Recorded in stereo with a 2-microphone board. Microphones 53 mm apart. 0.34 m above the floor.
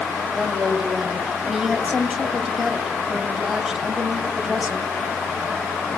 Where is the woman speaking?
5° right (ahead or behind), 1.9 m.